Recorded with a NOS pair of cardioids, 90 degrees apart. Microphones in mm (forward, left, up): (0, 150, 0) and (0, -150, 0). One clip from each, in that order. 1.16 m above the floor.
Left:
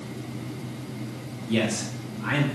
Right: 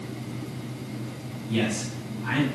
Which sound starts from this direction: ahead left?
A man speaking, at 1.5 s.